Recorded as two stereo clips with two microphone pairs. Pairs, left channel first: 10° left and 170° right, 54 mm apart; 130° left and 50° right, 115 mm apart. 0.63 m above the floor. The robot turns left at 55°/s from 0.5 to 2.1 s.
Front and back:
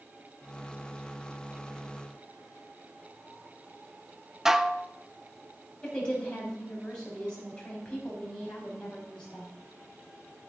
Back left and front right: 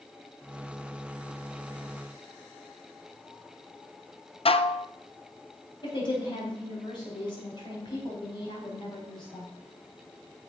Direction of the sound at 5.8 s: 85° left.